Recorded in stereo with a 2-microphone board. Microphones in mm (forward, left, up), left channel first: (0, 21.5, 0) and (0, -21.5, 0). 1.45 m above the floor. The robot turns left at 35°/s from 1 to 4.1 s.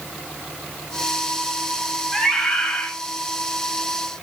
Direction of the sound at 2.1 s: 10° left (ahead or behind).